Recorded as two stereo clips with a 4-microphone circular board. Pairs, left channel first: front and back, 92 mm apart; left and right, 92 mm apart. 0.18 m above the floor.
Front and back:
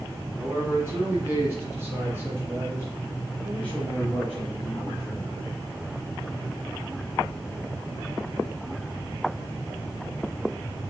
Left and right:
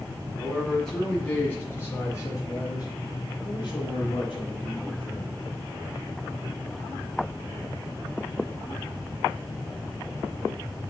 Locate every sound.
0.4 s a man speaking: 170° right, 1.5 m; by 5.4 s 105° left, 3 m